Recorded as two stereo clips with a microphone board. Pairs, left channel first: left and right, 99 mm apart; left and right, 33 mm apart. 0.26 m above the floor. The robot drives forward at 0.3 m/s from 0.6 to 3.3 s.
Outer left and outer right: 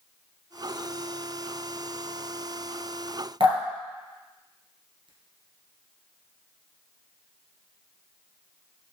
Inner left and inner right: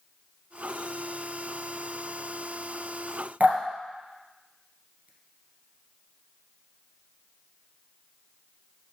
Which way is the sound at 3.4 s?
65° right (ahead or behind).